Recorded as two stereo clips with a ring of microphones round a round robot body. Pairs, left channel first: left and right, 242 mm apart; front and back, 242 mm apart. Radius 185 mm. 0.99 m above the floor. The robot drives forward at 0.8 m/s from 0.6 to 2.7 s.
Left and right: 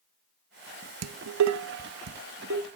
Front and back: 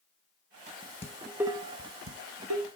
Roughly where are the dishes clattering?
Right.